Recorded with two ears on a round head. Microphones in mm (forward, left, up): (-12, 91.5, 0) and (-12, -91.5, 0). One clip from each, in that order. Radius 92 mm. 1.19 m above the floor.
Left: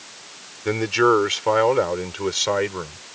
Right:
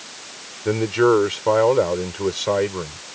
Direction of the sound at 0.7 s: 55° left (ahead or behind).